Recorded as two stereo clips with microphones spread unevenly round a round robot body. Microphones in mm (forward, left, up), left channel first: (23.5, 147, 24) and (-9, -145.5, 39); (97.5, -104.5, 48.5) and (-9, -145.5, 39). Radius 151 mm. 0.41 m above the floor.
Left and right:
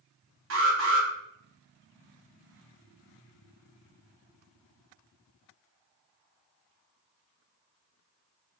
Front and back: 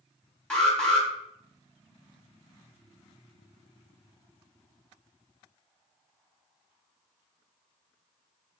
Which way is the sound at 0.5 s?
65° right.